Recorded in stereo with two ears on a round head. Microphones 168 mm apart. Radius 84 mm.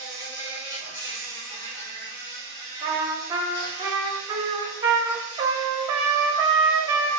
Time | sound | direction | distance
0.0 | an insect | 20° left (ahead or behind) | 1.9 m
2.8 | a trumpet | 25° right (ahead or behind) | 0.8 m